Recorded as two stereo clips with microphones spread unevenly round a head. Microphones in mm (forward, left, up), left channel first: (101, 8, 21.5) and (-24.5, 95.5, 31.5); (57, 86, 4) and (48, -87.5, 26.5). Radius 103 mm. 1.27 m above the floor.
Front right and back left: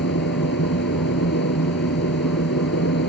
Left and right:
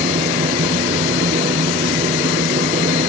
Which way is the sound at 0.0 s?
40° right.